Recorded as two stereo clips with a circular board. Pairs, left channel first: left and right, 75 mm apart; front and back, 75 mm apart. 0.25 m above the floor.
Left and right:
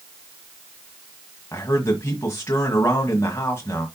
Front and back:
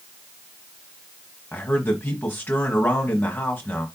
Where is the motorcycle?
No motorcycle in this recording.